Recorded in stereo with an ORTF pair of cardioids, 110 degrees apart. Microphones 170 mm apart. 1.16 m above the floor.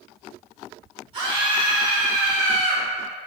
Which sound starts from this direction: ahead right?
A scream, at 1.1 s.